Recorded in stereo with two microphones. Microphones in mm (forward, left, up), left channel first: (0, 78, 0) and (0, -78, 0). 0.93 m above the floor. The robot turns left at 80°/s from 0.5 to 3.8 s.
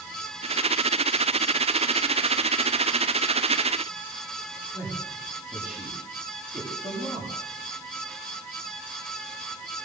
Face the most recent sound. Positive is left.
turn(degrees=-5)  # may be behind; listen again after turning